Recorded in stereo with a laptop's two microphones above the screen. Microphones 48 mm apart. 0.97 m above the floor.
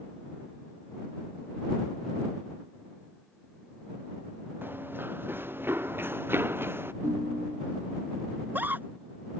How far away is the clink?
No clink in this recording.